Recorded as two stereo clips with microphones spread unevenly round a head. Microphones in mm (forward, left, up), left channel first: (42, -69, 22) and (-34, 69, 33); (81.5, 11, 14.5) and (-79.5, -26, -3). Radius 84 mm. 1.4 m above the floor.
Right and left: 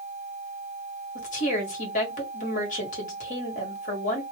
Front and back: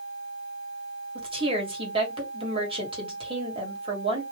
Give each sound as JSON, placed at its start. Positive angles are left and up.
{"t": 1.1, "sound": "a woman speaking", "azimuth_deg": -105, "distance_m": 1.3}